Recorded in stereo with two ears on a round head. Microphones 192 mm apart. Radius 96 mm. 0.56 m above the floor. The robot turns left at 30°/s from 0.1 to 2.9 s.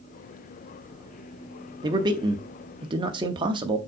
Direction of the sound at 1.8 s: 20° right (ahead or behind).